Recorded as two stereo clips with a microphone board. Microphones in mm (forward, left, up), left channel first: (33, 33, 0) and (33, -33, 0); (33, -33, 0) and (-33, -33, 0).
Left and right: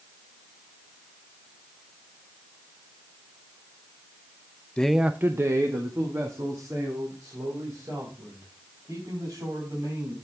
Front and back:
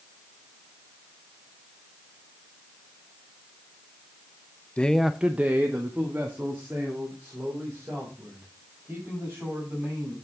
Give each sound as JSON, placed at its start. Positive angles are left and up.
{"t": 4.8, "sound": "a man speaking", "azimuth_deg": 40, "distance_m": 0.5}